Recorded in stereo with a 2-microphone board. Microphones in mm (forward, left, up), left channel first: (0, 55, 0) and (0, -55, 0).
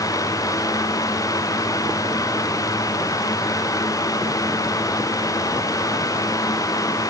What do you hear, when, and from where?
Only background noise.